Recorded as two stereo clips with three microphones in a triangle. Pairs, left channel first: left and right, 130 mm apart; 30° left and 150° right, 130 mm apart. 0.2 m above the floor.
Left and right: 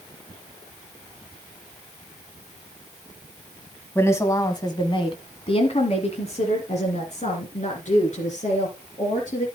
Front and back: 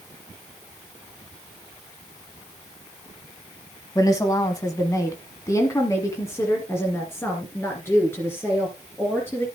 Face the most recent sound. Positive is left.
turn(degrees=105)